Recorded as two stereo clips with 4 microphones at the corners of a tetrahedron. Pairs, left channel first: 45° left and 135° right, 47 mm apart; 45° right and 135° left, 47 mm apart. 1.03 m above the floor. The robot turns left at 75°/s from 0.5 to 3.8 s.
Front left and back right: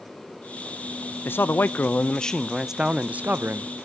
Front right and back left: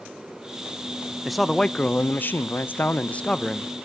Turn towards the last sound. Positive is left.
turn(degrees=-140)